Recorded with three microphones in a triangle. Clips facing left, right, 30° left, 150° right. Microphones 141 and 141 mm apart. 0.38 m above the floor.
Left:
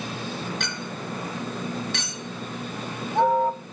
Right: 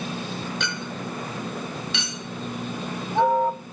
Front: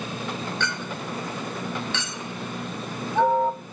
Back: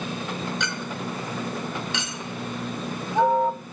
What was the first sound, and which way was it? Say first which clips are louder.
A clink: right 2 dB, even; 135° left.